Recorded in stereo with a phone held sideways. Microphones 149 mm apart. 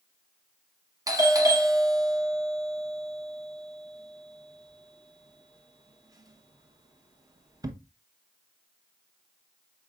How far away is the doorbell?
About 0.8 m.